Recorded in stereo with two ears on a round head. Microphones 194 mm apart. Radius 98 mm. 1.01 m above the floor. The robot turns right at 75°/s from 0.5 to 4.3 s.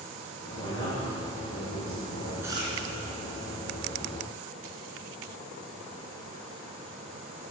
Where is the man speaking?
5° left, 4 m; by 2.3 s 135° left, 4 m.